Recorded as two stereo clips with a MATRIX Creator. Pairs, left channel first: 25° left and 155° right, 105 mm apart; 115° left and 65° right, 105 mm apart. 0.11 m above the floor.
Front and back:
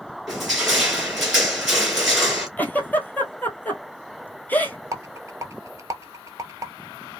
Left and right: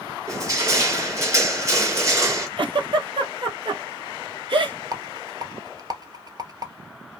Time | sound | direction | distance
0.3 | crushing | 70° right | 1.6 m
2.6 | a giggle | 45° right | 0.8 m
4.9 | a rattle | 105° right | 0.6 m